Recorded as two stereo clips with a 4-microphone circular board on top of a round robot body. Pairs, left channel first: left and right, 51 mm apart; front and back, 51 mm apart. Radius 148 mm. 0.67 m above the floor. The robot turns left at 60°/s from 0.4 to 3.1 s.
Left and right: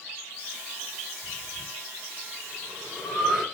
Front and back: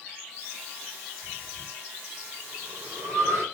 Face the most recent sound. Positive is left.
turn(degrees=180)